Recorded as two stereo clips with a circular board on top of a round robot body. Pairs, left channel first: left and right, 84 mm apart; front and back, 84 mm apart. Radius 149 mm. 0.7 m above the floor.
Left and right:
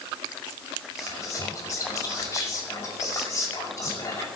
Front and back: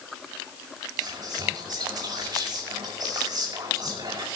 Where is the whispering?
145° left, 6.5 m.